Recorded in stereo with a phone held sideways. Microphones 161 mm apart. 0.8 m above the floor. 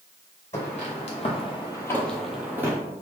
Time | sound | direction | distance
0.5 | footsteps | 45° left (ahead or behind) | 1.5 m